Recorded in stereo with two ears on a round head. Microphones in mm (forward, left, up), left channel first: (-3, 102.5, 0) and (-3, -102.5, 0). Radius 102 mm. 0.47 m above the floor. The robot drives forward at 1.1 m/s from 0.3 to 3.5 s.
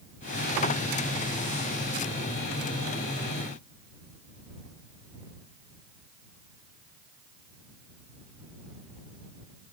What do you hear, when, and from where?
Only background noise.